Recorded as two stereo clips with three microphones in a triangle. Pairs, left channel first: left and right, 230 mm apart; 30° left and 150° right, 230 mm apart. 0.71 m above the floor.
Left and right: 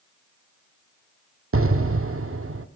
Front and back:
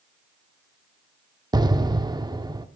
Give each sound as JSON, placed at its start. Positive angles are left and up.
{"t": 1.5, "sound": "an explosion", "azimuth_deg": -75, "distance_m": 0.5}